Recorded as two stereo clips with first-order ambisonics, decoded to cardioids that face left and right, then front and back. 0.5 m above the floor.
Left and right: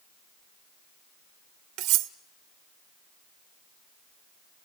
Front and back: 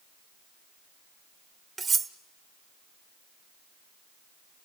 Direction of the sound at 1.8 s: 105° right.